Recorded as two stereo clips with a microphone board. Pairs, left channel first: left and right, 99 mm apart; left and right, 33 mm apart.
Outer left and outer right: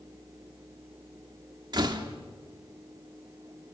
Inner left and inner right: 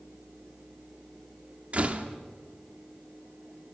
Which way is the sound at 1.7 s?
45° right (ahead or behind).